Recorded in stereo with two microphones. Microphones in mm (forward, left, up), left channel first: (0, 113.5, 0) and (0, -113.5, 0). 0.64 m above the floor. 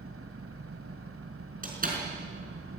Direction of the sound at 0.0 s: 80° right.